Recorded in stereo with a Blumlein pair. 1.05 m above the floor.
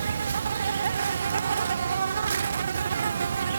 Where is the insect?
70° right.